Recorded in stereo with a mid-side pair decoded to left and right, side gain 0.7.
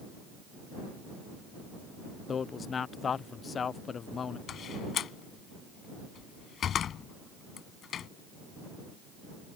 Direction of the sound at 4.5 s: 40° left.